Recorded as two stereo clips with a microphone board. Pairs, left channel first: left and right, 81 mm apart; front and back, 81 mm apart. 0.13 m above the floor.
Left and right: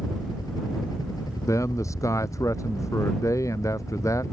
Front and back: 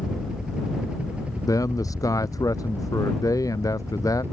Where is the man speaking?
40° left.